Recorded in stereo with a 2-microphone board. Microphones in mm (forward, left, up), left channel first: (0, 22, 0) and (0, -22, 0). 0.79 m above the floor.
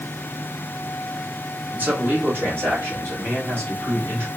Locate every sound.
1.7 s a man speaking: 40° right (ahead or behind), 1.0 m; by 4.3 s 65° right (ahead or behind), 2.5 m